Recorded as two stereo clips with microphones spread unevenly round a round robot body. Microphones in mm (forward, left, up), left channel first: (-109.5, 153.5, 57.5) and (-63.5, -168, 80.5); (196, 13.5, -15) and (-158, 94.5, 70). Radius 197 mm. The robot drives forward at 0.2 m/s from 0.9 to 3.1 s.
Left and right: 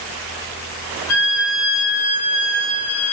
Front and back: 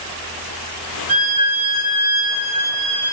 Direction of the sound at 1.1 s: 135° left.